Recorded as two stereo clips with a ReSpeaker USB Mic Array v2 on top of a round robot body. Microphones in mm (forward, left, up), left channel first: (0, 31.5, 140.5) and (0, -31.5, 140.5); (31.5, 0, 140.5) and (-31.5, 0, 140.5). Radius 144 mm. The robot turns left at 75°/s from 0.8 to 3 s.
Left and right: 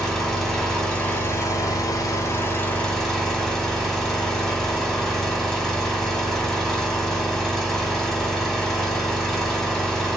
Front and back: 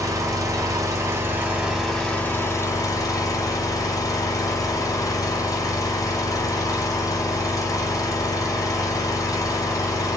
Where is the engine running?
170° left, 1.7 m; by 10.2 s 5° left, 1.7 m.